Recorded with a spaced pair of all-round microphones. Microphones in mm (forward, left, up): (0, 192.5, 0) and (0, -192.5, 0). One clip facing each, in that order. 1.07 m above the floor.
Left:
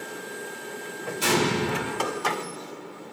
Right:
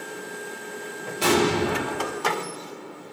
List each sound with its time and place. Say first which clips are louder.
1.2 s an explosion: right 4 dB; 75° right (ahead or behind), 3.5 m